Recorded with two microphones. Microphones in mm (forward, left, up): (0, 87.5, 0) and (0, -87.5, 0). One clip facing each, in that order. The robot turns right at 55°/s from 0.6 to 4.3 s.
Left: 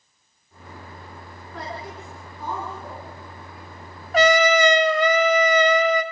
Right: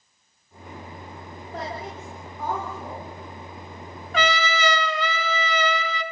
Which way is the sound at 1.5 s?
75° right (ahead or behind).